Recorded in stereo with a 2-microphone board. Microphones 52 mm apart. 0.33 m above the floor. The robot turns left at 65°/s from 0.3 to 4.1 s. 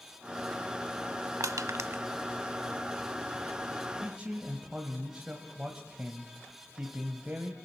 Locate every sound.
1.4 s crushing: 80° right, 0.6 m; by 2.0 s 40° right (ahead or behind), 0.6 m
4.0 s a man speaking: 20° right (ahead or behind), 1.5 m; by 7.5 s 15° right (ahead or behind), 1.5 m